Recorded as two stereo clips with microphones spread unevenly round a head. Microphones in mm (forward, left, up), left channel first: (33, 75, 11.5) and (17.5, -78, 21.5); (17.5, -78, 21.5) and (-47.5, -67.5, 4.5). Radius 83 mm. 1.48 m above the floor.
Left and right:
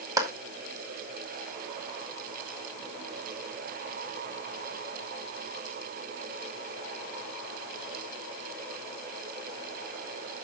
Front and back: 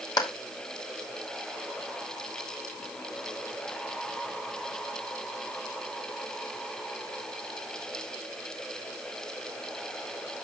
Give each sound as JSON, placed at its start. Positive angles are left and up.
{"t": 0.2, "sound": "a clap", "azimuth_deg": -25, "distance_m": 2.5}